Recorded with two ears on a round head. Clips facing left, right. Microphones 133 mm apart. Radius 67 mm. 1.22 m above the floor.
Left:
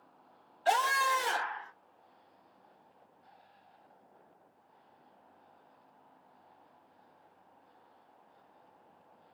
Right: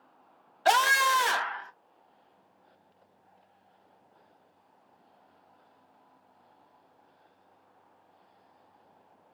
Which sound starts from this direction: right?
A scream, at 0.7 s.